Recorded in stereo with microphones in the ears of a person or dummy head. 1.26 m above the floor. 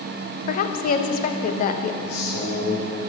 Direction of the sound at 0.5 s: 45° left (ahead or behind).